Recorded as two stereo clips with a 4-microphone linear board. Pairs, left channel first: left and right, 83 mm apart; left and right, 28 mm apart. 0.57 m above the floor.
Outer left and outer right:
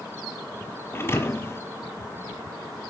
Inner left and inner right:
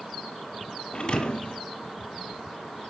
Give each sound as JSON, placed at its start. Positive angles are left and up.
{"t": 0.9, "sound": "a thud", "side_deg": 30, "distance_m": 1.3}